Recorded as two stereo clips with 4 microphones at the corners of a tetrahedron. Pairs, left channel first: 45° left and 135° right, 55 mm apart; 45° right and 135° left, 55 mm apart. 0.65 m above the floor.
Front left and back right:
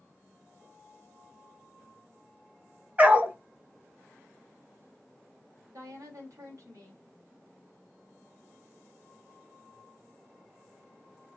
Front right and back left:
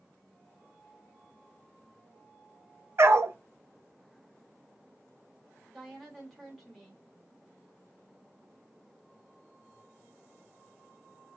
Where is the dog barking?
165° left, 0.8 m.